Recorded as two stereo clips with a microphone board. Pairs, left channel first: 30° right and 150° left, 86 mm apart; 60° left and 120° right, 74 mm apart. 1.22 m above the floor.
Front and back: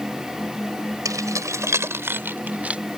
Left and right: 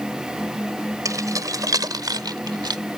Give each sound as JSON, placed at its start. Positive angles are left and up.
{"t": 1.1, "sound": "keys jangling", "azimuth_deg": -160}